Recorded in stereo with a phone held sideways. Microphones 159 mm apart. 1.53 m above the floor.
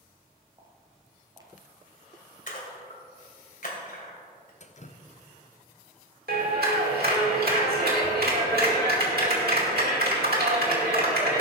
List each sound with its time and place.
0.6 s footsteps: 25° right (ahead or behind), 1.7 m
2.5 s a splash: 60° left (ahead or behind), 2.5 m
4.6 s dripping: 50° left (ahead or behind), 0.6 m
6.3 s a clap: 75° right (ahead or behind), 2.5 m